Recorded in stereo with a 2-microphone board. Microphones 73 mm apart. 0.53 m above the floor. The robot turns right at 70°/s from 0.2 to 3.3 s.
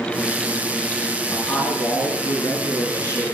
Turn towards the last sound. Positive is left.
turn(degrees=165)